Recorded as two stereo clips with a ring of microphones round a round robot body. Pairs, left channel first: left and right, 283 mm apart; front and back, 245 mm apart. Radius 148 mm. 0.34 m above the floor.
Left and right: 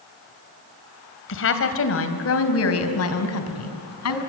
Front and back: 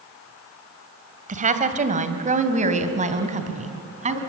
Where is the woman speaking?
125° left, 2.5 m; by 4.2 s 120° left, 4 m.